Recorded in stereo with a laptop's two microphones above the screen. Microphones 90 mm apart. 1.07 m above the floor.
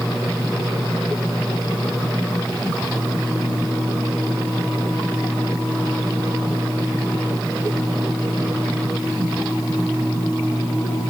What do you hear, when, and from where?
Only background noise.